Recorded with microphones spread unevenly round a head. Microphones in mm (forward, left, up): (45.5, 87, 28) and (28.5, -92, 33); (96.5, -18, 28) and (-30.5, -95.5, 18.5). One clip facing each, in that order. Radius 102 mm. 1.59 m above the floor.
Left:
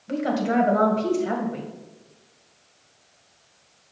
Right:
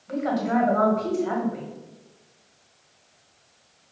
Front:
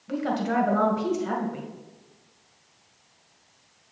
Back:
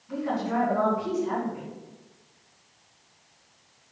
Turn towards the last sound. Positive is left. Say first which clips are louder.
# left 1 dB, front 2 dB
turn(degrees=30)